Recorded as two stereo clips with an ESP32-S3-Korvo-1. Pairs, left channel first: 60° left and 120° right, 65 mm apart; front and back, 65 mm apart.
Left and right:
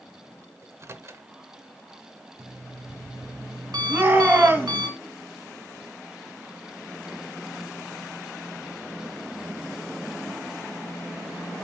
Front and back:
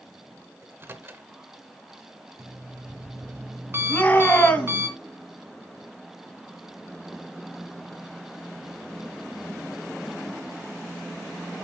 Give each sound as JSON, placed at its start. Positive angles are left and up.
{"t": 0.6, "sound": "a microwave", "azimuth_deg": -140, "distance_m": 0.9}
{"t": 2.4, "sound": "an alarm clock", "azimuth_deg": -125, "distance_m": 2.5}
{"t": 3.9, "sound": "a shout", "azimuth_deg": -60, "distance_m": 2.5}